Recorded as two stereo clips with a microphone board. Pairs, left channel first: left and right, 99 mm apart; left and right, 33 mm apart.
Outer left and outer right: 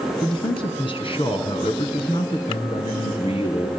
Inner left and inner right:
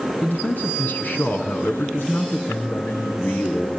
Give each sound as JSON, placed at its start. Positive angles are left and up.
{"t": 0.2, "sound": "a man speaking", "side_deg": 55, "distance_m": 3.0}